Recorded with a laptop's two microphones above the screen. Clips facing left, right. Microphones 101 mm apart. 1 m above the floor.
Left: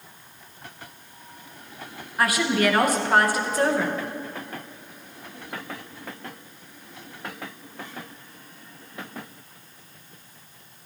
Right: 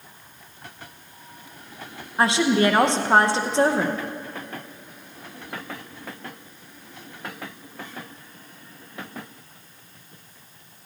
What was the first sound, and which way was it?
A woman speaking, 25° right (ahead or behind).